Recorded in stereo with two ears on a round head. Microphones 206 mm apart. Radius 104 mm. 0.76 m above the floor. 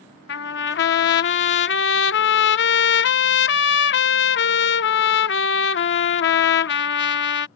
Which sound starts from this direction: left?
A trumpet, at 0.3 s.